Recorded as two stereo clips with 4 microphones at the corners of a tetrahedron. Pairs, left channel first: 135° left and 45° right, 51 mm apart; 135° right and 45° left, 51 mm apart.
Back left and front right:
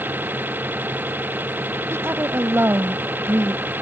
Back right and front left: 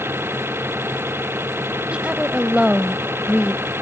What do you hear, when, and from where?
0.0 s an engine running: 5° left
1.9 s a woman speaking: 20° right